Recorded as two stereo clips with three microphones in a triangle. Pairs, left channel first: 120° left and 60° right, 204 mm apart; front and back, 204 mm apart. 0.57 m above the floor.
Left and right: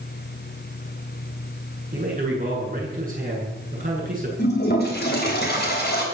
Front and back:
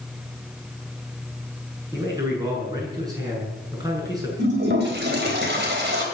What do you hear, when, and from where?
1.9 s a man speaking: 110° right, 8 m
4.4 s a toilet flushing: 150° left, 3.5 m